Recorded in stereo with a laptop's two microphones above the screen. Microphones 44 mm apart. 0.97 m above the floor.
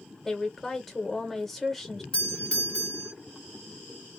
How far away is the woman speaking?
About 0.9 m.